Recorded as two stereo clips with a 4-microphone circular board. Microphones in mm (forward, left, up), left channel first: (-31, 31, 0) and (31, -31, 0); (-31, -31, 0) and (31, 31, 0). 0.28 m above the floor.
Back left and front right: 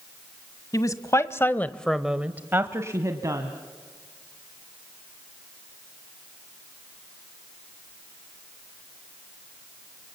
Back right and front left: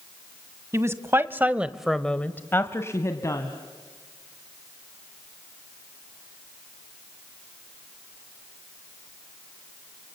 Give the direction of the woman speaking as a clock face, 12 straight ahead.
9 o'clock.